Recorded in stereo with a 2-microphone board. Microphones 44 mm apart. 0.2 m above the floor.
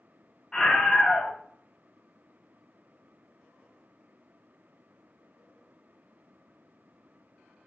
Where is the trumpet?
No trumpet in this recording.